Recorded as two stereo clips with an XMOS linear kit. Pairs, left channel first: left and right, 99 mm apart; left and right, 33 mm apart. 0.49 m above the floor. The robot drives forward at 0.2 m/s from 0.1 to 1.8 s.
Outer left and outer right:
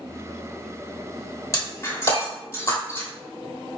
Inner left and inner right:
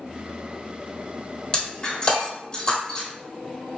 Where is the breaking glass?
35° left (ahead or behind), 1.5 m; by 3.1 s 30° left (ahead or behind), 1.5 m.